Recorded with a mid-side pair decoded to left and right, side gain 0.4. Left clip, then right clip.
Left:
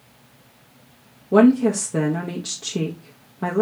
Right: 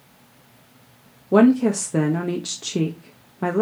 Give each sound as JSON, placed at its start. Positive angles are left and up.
{"t": 1.3, "sound": "a woman speaking", "azimuth_deg": -20, "distance_m": 0.7}